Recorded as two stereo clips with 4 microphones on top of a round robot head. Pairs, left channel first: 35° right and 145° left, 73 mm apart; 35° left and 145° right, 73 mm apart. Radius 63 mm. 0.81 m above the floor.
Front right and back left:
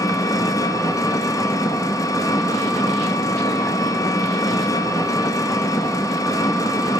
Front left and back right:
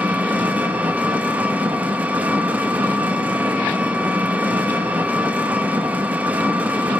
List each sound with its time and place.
0.0 s an engine running: 75° right, 0.8 m